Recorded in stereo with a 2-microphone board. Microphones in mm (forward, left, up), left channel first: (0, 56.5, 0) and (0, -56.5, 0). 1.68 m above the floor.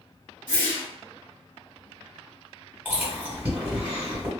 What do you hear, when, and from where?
0.5 s a whoosh: 40° right (ahead or behind), 1.9 m
2.9 s chewing: 15° right (ahead or behind), 1.8 m